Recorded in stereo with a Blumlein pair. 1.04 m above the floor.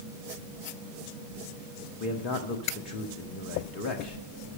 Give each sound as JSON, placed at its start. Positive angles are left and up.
{"t": 2.0, "sound": "a man speaking", "azimuth_deg": 35, "distance_m": 1.5}